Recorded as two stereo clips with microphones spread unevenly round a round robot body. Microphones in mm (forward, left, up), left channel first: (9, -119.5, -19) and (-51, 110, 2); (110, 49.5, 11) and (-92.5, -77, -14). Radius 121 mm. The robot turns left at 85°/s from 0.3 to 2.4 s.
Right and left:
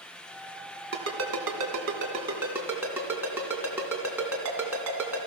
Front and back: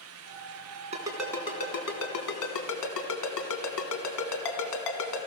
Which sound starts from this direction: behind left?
A ringtone, at 0.9 s.